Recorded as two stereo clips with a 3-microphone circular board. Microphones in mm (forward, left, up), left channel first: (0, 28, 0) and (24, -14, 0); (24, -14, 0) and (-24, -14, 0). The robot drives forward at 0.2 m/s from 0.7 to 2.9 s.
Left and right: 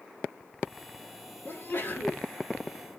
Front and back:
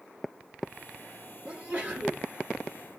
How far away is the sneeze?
About 2.5 m.